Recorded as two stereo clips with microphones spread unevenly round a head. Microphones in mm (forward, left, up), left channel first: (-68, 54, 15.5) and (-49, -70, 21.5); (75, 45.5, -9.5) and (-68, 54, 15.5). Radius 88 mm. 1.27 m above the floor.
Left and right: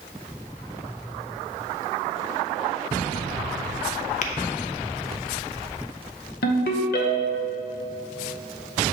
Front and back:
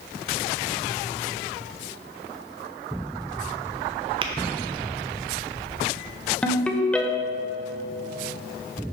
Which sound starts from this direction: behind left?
Tapping, at 4.2 s.